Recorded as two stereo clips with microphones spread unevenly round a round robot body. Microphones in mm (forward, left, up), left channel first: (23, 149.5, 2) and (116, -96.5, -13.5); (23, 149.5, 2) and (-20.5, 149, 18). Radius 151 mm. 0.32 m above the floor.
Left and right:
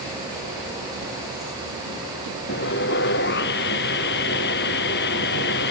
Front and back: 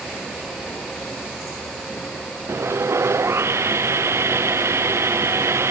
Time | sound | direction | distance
2.5 | sawing | 170° left | ?